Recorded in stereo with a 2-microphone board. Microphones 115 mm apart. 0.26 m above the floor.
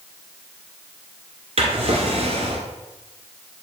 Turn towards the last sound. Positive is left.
turn(degrees=-65)  # may be behind; listen again after turning